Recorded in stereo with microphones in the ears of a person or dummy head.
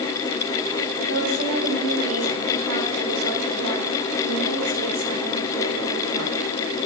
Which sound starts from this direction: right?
A woman speaking, at 1.1 s.